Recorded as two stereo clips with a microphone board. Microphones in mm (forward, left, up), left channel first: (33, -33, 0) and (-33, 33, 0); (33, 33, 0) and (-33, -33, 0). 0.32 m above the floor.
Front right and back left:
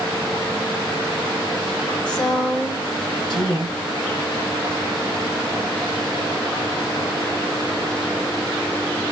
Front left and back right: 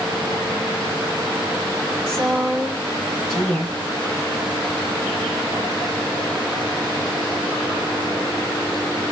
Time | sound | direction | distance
2.1 | a woman speaking | 40° right | 2.5 m